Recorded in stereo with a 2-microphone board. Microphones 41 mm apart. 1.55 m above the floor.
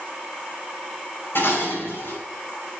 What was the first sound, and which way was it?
Dishes clattering, 65° left (ahead or behind).